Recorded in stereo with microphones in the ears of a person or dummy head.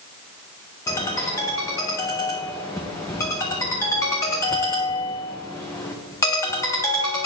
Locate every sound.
0.9 s a ringtone: 10° left (ahead or behind), 0.5 m